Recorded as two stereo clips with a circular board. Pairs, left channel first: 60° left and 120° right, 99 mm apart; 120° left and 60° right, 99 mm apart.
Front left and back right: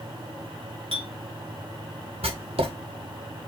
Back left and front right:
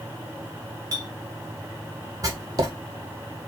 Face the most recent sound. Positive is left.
turn(degrees=-115)